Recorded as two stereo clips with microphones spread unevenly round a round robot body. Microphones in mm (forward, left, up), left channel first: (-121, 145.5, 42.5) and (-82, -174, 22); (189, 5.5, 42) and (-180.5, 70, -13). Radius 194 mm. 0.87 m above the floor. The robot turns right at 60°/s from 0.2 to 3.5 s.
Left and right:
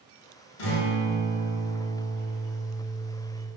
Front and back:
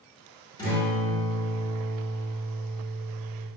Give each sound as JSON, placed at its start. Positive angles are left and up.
{"t": 0.6, "sound": "a guitar", "azimuth_deg": 70, "distance_m": 7.0}